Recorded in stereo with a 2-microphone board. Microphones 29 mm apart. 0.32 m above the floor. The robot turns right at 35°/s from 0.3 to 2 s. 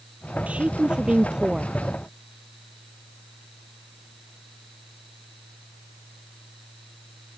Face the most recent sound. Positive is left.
turn(degrees=5)